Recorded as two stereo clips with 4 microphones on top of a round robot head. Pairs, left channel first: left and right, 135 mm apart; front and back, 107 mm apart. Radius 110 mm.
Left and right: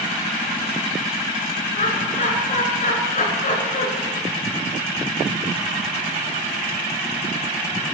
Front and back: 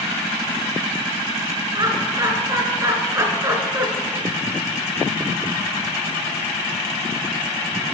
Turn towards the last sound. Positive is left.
turn(degrees=115)